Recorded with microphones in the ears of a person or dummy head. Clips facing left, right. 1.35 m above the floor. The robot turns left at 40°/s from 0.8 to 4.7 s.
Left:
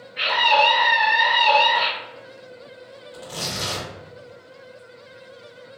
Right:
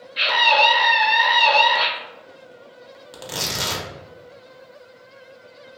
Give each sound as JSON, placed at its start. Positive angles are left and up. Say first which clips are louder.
{"t": 0.2, "sound": "a scream", "louder": "even", "azimuth_deg": -50, "distance_m": 1.2}
{"t": 3.1, "sound": "tearing paper", "louder": "right 2 dB", "side_deg": -90, "distance_m": 0.7}